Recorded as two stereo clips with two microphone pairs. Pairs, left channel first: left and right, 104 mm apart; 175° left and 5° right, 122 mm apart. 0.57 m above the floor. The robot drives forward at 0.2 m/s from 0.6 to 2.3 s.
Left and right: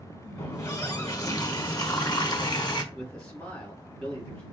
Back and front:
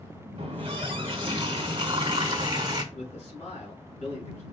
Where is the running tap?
35° left, 1.2 m; by 2.8 s 50° left, 0.9 m.